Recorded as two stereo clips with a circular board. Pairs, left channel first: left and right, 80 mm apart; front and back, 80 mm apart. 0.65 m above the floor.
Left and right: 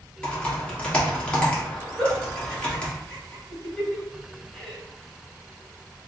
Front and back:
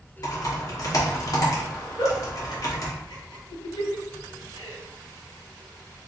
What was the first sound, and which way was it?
Typing on a keyboard, 15° left.